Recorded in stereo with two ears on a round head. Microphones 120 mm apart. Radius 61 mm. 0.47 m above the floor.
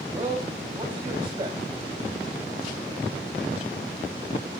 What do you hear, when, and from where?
0.1 s a man speaking: 30° right (ahead or behind), 2.5 m